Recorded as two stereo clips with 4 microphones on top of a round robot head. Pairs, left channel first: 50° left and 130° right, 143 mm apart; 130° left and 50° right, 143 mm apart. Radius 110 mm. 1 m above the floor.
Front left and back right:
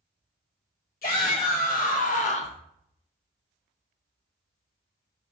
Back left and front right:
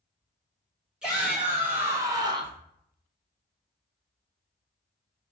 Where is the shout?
35° left, 1.1 m; by 2.6 s straight ahead, 0.5 m.